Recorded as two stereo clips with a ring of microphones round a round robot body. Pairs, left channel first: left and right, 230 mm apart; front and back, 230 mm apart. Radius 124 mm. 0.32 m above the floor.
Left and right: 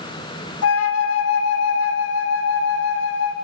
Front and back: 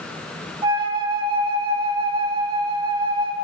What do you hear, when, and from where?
0.6 s a flute: 110° left, 0.7 m